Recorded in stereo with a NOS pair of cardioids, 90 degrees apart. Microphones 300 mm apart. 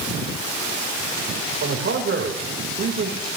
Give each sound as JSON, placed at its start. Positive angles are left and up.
{"t": 1.6, "sound": "a man speaking", "azimuth_deg": -45, "distance_m": 5.0}